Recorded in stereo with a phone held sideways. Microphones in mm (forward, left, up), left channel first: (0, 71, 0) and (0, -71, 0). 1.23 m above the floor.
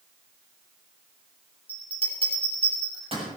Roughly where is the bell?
Right.